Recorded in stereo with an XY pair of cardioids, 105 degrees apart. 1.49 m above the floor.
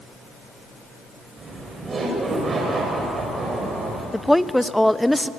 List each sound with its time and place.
1.4 s laughter: 40° right, 5.5 m
4.1 s a woman speaking: straight ahead, 0.8 m